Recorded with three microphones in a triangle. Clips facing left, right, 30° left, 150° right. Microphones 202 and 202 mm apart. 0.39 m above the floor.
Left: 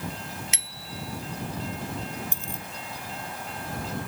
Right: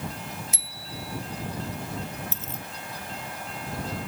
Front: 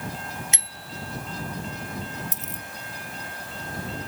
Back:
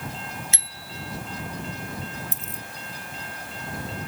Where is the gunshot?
No gunshot in this recording.